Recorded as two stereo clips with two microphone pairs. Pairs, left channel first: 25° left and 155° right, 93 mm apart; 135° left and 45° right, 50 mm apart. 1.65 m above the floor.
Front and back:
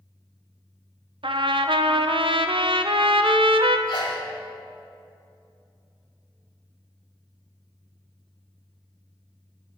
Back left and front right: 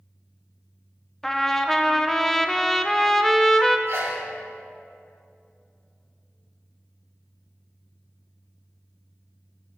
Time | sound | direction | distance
1.2 | a trumpet | 140° right | 0.5 m
3.9 | a sneeze | 15° right | 2.5 m